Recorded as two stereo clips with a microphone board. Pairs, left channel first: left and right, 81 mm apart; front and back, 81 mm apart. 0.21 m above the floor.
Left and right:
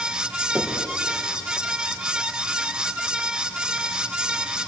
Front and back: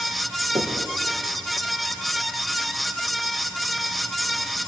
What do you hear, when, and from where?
0.6 s knocking: 170° right, 6 m